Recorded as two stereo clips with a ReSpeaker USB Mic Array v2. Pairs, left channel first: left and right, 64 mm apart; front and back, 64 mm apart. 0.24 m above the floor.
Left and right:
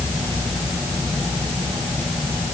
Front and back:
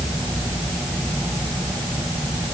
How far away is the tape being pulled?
No tape being pulled in this recording.